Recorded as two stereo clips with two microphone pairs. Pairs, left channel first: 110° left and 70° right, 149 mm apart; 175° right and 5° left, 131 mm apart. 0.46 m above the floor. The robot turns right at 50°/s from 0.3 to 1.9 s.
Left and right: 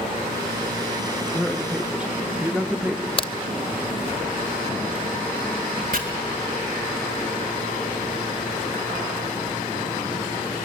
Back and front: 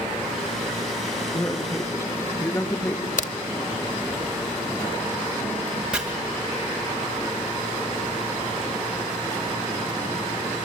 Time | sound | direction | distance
1.3 | a man speaking | 165° right | 0.7 m
3.2 | a crack | 170° left | 0.6 m
5.9 | chopping | 80° right | 2.5 m